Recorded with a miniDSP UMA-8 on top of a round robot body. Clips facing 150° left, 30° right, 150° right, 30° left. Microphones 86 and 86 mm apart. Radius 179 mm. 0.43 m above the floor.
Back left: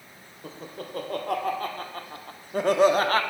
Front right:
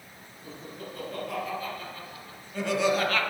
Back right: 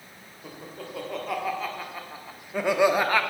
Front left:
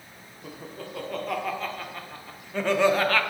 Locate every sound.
0.4 s laughter: 120° left, 2.5 m; by 3.2 s 150° left, 1.2 m